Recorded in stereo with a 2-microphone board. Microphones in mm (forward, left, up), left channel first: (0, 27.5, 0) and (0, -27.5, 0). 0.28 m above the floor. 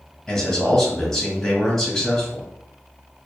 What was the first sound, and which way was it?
A man speaking, 10° left (ahead or behind).